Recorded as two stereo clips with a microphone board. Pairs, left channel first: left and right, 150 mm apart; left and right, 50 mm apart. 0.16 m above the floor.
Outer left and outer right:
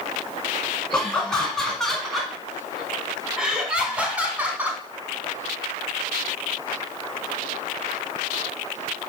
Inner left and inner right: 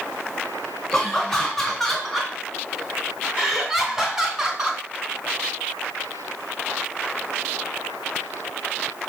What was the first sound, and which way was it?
Laughter, 5° left (ahead or behind).